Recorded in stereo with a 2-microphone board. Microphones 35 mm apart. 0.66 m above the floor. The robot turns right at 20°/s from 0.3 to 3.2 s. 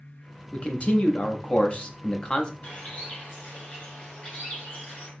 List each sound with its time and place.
0.5 s a man speaking: 105° left, 0.7 m; by 2.5 s 145° left, 0.7 m
2.6 s a bird: 55° left (ahead or behind), 2 m; by 5.1 s 40° left (ahead or behind), 2 m